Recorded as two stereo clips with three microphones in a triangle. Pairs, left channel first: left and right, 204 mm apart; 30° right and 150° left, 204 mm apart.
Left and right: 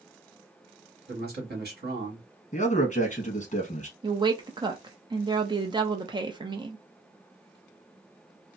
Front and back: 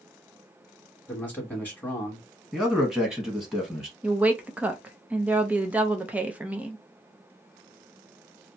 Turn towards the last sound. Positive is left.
turn(degrees=-135)